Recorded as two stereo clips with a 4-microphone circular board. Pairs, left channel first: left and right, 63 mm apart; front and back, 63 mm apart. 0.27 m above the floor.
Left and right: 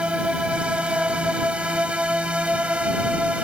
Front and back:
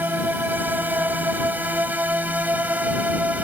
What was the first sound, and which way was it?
A drone, 150° right.